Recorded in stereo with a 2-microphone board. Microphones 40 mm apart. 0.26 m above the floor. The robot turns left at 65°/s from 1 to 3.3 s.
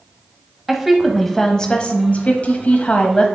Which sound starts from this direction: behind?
A woman speaking, at 0.7 s.